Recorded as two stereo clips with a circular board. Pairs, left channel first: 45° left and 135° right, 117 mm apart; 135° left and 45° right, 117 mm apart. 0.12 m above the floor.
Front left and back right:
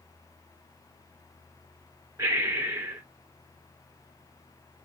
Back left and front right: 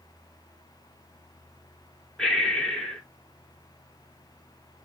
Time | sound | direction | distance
2.2 | breathing | 145° right | 1.1 m